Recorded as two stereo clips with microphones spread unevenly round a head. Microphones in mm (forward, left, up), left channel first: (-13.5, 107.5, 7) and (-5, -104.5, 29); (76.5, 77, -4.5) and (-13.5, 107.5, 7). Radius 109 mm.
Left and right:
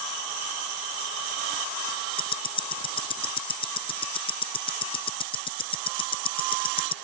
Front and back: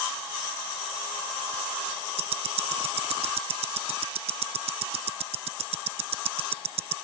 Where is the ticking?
160° left.